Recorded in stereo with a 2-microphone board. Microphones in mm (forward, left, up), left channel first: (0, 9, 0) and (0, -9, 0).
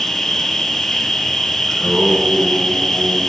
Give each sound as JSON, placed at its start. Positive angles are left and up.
{"t": 0.0, "sound": "an insect", "side_deg": 25, "distance_m": 1.6}
{"t": 1.7, "sound": "singing", "side_deg": 0, "distance_m": 5.0}